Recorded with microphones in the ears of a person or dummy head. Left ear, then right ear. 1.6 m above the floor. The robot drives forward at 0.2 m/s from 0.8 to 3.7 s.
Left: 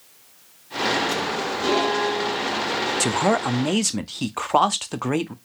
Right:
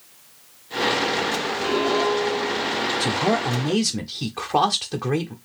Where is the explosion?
I don't hear an explosion.